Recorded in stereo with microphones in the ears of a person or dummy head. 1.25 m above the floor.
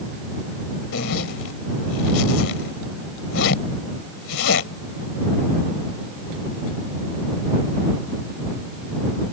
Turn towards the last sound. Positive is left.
turn(degrees=85)